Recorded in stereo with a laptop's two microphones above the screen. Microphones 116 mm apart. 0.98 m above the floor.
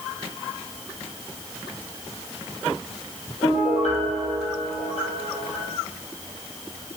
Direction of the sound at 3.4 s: 80° left.